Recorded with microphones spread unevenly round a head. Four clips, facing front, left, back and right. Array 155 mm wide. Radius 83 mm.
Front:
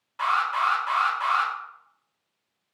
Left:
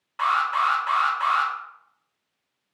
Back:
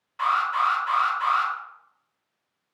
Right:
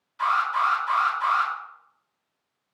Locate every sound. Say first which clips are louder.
0.2 s an alarm: left 1 dB, back 1 dB; 65° left, 4.5 m